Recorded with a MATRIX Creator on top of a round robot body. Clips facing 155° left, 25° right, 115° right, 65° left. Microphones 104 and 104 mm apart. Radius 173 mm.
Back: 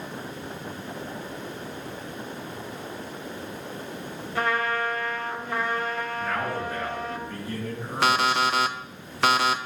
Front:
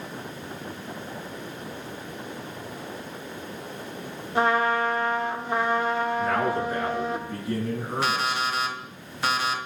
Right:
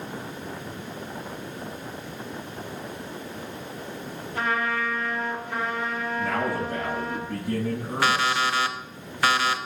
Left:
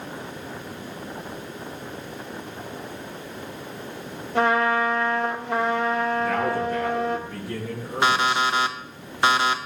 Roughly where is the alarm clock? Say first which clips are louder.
Back 6 dB, left 3 dB; behind left.